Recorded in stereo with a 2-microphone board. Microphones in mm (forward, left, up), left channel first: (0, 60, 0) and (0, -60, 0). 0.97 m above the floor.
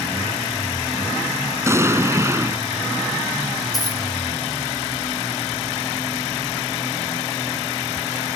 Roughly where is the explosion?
Right.